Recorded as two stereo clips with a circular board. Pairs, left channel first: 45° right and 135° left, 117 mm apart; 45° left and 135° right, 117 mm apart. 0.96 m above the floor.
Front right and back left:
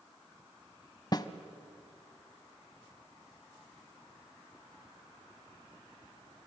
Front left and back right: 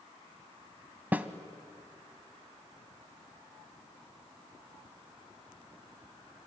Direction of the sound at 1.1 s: 70° right.